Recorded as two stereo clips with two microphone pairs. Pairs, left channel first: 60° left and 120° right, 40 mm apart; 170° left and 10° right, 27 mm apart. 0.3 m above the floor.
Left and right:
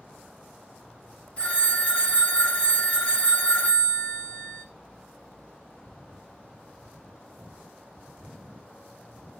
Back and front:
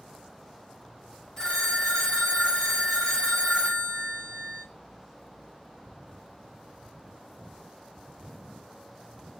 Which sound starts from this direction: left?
A phone ringing, at 1.4 s.